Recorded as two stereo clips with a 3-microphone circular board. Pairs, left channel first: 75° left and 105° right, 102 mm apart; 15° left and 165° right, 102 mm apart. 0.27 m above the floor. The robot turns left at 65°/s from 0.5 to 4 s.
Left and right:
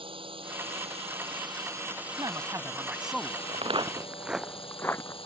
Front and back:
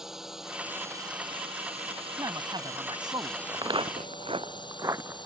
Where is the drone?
80° right; by 5.3 s 55° left.